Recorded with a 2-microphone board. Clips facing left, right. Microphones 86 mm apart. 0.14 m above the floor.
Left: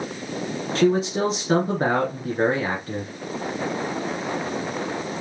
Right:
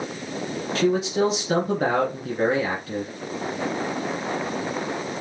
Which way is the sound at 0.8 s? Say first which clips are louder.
Left 1 dB; 35° left (ahead or behind).